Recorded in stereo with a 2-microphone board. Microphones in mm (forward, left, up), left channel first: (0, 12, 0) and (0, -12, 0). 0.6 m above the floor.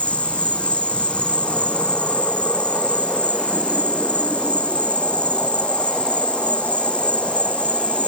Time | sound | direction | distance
0.0 | an insect | 55° left (ahead or behind) | ?